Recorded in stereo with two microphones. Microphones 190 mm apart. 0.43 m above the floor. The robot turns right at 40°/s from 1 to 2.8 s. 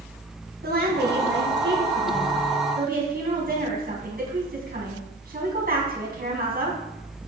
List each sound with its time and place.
0.6 s a woman speaking: 125° right, 3.5 m; by 6.8 s 50° right, 3.5 m